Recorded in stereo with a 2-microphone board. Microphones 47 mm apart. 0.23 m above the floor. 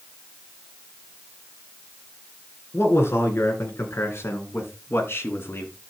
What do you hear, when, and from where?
2.7 s a man speaking: 60° left (ahead or behind), 3 m; by 5.7 s 55° left (ahead or behind), 2.5 m